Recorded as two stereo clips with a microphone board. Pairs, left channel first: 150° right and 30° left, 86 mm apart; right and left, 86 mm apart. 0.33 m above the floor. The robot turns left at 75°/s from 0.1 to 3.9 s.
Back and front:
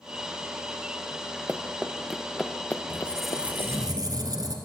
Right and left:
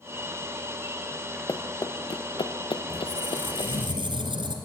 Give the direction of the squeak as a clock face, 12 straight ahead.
7 o'clock.